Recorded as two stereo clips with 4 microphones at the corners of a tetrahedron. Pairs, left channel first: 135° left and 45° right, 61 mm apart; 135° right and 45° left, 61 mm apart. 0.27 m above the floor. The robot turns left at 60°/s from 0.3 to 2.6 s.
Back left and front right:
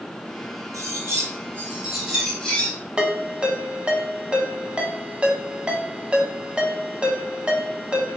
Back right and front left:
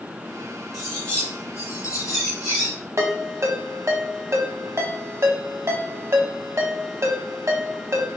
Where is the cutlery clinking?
45° right, 1.9 m; by 2.7 s 155° right, 1.9 m.